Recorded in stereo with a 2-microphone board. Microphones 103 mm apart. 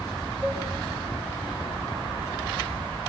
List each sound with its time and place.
0.4 s a cowbell: 15° right (ahead or behind), 2 m